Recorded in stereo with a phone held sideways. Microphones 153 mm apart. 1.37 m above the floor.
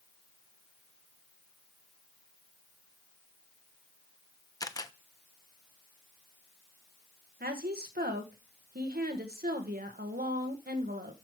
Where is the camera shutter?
25° left (ahead or behind), 0.7 m.